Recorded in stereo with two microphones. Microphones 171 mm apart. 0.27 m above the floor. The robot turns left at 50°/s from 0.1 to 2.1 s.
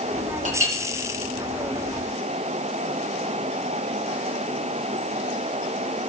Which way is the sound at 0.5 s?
50° right (ahead or behind).